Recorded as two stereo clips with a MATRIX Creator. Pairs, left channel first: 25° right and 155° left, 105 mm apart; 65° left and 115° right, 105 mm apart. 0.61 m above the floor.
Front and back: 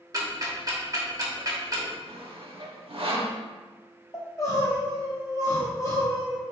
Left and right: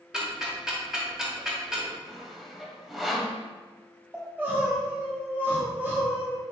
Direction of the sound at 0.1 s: 165° left.